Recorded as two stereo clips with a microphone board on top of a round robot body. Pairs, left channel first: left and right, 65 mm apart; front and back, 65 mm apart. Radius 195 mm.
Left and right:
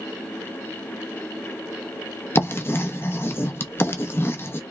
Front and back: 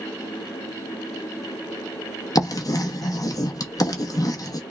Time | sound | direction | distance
2.4 | writing | 35° left | 0.8 m